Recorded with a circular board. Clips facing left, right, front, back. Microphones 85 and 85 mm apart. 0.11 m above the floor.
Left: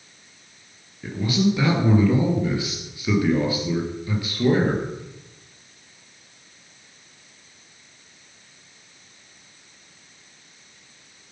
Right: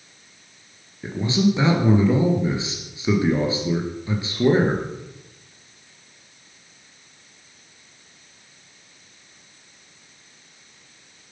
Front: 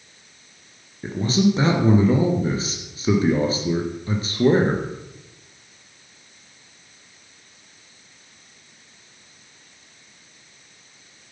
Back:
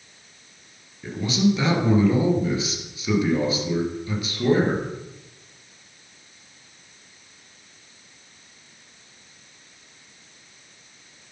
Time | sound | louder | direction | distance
1.0 | a man speaking | right 1 dB, front 2 dB | 35° right | 2.5 m